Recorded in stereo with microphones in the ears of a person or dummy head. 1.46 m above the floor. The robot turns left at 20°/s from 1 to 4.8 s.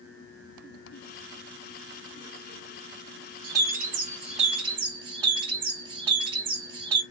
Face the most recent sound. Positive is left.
turn(degrees=-30)  # may be behind; listen again after turning